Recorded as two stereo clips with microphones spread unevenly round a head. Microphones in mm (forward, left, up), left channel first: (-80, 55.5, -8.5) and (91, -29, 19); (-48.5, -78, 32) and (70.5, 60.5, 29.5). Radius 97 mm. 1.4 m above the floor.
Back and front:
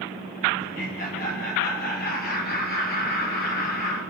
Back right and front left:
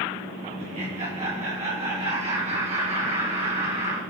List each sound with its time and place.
0.6 s laughter: 110° left, 1.9 m